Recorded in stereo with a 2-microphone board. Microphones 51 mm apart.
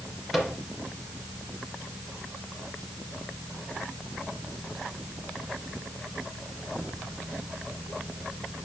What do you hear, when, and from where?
0.3 s a microwave: centre (ahead or behind), 2.5 m